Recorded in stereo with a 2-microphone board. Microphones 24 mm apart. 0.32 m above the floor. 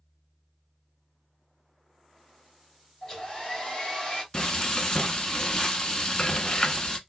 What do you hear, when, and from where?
3.0 s a hair dryer: 30° left (ahead or behind), 1.5 m
4.3 s frying: 30° left (ahead or behind), 0.6 m